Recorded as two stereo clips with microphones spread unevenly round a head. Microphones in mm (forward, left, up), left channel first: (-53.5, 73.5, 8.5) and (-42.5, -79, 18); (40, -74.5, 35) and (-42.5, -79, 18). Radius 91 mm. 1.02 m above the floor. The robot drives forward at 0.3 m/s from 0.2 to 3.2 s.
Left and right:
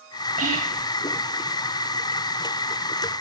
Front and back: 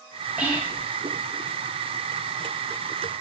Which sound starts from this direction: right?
Whispering, at 0.4 s.